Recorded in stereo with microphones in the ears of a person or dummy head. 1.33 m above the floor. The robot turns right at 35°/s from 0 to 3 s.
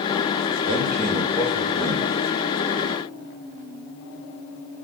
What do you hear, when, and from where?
0.6 s a man speaking: 40° right, 0.8 m; by 2.1 s 15° left, 0.8 m